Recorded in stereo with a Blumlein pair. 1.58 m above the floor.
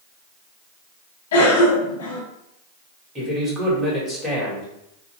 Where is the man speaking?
10° right, 2 m.